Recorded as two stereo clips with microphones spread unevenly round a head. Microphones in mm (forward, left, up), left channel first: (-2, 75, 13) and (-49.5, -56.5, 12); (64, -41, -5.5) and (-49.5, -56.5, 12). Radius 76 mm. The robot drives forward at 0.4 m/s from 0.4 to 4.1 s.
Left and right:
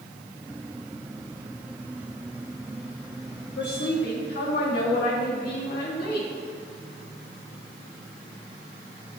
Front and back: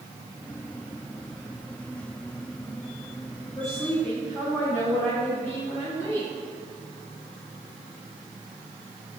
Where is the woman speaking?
80° left, 2.5 m; by 6.3 s 85° left, 2 m.